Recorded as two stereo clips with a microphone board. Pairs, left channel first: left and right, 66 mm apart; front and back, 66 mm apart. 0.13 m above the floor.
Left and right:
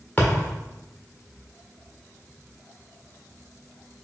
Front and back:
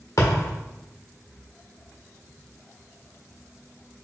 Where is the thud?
25° left, 1.8 m.